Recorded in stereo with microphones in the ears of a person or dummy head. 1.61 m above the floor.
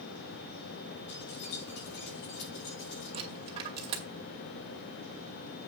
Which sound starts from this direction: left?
Keys jangling, at 1.1 s.